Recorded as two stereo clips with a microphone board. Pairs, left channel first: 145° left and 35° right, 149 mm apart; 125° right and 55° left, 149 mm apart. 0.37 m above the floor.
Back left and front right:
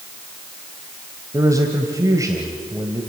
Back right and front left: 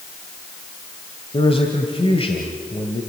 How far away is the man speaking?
About 1.6 m.